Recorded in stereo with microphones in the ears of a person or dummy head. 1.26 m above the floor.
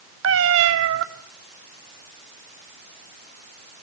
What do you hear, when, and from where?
0.2 s a cat meowing: 75° right (ahead or behind), 1.9 m